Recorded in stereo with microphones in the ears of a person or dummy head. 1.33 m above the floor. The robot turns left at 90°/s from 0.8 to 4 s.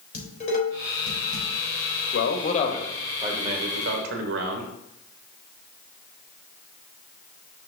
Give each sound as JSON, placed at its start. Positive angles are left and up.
{"t": 0.1, "sound": "dishes clattering", "side_deg": 45, "distance_m": 3.5}
{"t": 2.1, "sound": "a man speaking", "azimuth_deg": 75, "distance_m": 1.4}